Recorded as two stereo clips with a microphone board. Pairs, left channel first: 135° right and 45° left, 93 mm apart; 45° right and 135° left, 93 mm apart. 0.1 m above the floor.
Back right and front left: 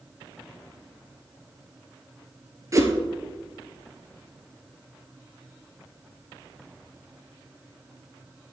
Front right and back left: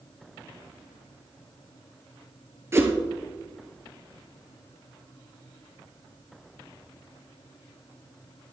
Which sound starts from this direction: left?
A whoosh, at 2.7 s.